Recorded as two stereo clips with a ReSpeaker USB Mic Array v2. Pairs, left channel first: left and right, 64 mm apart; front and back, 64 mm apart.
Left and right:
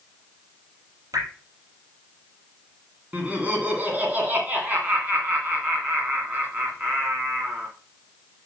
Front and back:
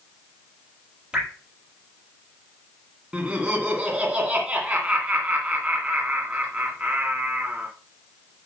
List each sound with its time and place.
1.1 s dripping: 105° right, 4.5 m
3.1 s laughter: 125° right, 1.8 m